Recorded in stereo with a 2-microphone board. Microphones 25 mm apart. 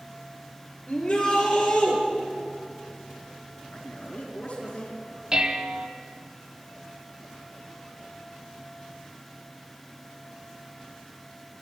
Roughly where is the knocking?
I don't hear knocking.